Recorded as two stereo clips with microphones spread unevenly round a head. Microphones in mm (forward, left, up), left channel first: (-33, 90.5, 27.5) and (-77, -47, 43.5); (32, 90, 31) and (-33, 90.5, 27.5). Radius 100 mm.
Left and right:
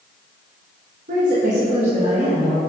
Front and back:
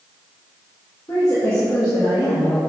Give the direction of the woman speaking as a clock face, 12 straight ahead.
2 o'clock.